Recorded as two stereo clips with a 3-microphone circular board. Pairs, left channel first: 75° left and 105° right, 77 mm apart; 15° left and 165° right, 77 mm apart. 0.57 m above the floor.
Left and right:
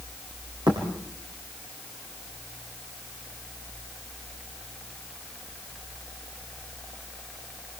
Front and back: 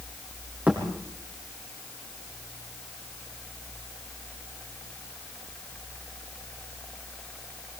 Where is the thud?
100° right, 8 m.